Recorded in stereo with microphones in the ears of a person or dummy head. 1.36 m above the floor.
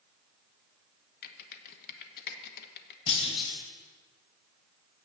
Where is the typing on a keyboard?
60° left (ahead or behind), 1.0 m.